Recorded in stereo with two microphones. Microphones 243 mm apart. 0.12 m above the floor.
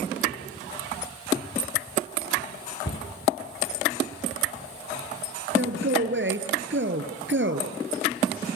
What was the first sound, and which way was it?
A cupboard door, 55° left (ahead or behind).